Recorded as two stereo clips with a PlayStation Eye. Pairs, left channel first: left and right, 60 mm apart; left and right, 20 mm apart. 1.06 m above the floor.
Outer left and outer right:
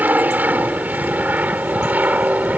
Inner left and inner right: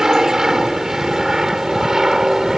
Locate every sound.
0.0 s an aircraft: 30° right (ahead or behind); by 2.6 s 25° right (ahead or behind)